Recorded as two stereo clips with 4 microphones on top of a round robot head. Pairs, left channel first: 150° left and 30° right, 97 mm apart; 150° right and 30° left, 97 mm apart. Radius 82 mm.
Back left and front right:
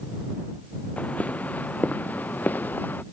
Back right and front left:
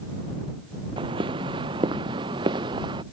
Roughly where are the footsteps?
Left.